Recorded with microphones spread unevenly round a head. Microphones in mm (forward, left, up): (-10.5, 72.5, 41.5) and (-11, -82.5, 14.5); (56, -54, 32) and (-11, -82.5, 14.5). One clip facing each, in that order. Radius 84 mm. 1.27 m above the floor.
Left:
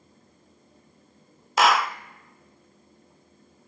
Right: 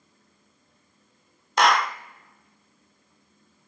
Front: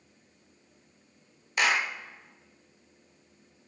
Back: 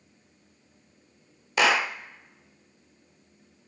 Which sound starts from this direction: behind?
A clap, at 1.6 s.